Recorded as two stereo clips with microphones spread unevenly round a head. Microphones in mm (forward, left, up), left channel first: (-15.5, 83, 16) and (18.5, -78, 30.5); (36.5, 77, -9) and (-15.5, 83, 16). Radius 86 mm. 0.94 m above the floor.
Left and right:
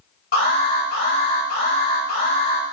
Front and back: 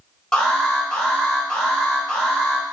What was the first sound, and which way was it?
An alarm, 70° left.